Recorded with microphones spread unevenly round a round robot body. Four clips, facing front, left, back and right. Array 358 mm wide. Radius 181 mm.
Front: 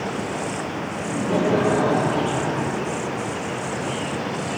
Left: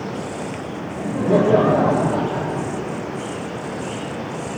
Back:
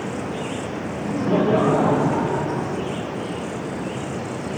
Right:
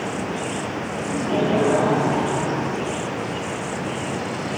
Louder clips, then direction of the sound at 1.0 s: Left 5 dB, back 2 dB; 95° left.